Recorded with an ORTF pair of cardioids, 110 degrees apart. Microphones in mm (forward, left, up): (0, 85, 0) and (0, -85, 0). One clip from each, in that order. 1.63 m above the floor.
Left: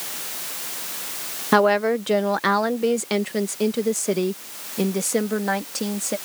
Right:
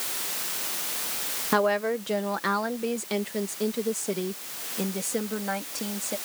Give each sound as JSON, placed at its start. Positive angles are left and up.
{"t": 1.5, "sound": "a woman speaking", "azimuth_deg": 35}